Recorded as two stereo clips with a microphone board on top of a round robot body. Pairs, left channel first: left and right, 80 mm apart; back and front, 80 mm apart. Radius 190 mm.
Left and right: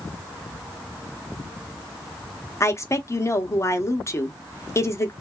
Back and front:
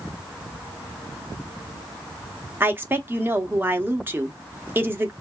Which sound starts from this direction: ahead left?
A woman speaking, at 2.6 s.